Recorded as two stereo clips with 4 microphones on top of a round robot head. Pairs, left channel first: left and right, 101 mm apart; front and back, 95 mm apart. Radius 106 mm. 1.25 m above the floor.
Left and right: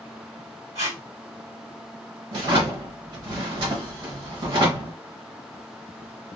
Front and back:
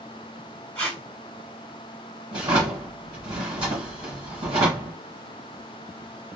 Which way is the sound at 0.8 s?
60° right.